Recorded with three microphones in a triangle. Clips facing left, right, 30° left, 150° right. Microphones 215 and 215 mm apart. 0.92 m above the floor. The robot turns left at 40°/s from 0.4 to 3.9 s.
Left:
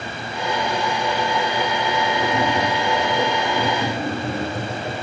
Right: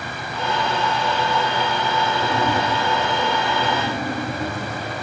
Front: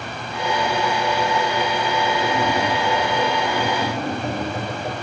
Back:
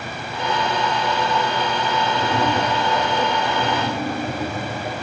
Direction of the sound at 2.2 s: 165° left.